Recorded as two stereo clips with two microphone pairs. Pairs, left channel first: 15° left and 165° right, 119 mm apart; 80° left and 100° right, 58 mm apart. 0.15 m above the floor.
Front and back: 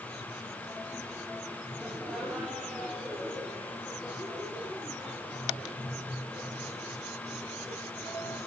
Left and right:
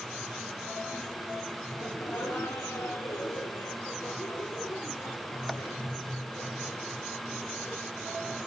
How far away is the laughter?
About 2 m.